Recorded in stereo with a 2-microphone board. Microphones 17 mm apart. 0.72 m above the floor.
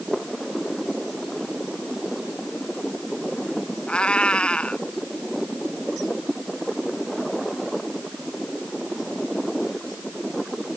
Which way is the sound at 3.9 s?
90° left.